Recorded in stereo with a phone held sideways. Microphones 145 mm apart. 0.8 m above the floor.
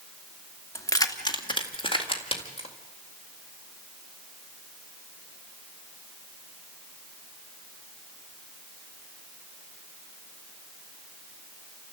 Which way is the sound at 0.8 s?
20° left (ahead or behind).